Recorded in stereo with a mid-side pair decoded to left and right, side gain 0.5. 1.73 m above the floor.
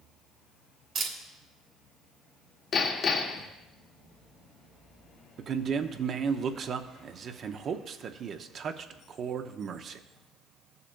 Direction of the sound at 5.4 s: 50° right.